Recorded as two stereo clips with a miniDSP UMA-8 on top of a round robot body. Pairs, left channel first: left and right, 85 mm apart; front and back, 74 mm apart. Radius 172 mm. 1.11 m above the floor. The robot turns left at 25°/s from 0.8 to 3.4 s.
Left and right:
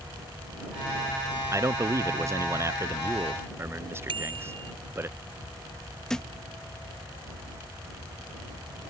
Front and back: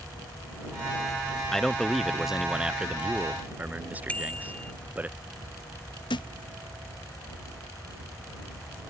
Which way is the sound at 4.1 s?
70° right.